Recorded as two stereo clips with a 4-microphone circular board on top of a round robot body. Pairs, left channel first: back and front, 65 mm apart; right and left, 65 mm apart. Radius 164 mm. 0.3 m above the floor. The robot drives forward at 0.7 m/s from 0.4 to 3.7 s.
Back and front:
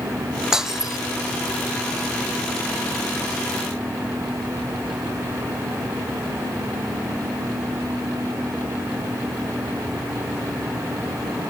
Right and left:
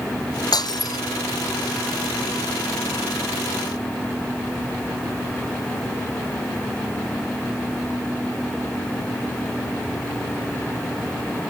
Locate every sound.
0.5 s breaking glass: 80° right; by 1.0 s 85° right